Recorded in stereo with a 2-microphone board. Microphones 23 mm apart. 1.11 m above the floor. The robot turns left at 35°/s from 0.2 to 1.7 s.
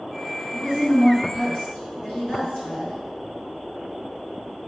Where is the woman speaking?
105° left, 1.8 m; by 3.0 s 65° left, 1.8 m.